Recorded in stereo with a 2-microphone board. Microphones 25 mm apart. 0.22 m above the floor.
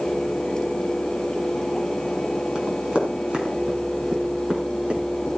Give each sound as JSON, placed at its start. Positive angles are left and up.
{"t": 2.5, "sound": "running footsteps", "side_deg": -45, "distance_m": 6.5}